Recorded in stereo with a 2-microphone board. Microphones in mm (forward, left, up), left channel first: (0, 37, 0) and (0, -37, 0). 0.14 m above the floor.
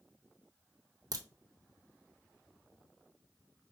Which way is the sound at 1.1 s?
50° right (ahead or behind).